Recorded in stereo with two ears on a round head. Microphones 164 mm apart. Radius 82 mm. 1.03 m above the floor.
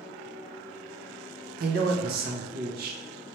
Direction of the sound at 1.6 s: 55° right (ahead or behind).